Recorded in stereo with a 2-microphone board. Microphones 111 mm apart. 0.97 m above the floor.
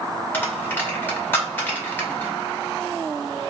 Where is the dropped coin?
20° left (ahead or behind), 0.8 m.